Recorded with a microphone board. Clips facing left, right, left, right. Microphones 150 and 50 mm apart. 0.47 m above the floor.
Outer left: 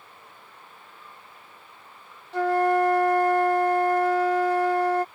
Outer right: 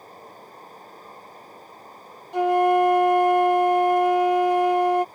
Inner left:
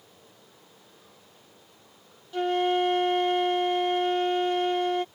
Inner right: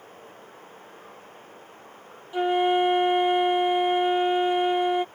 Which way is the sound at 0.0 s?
40° right (ahead or behind).